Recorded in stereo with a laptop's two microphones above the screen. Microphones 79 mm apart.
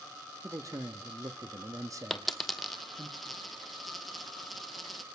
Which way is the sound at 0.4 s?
45° right (ahead or behind).